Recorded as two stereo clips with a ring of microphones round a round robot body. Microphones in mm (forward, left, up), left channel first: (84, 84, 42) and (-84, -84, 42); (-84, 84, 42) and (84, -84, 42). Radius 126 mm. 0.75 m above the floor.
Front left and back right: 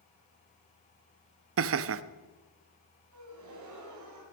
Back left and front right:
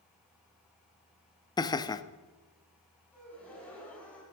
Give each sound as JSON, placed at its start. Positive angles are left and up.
{"t": 1.6, "sound": "laughter", "azimuth_deg": -150, "distance_m": 0.8}
{"t": 3.1, "sound": "a gasp", "azimuth_deg": -140, "distance_m": 3.5}